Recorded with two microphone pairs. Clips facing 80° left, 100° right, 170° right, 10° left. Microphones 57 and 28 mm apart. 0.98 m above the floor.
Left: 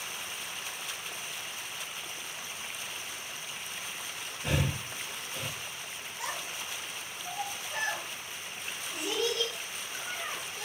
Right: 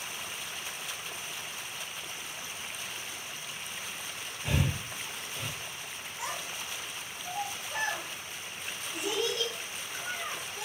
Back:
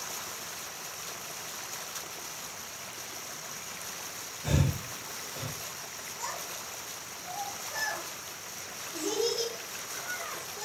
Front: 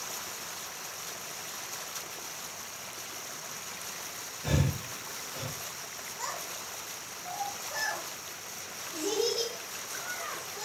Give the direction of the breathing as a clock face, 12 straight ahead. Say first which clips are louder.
Even, even; 10 o'clock.